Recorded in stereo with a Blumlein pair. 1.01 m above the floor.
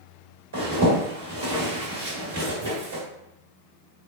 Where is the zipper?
65° right, 1.8 m.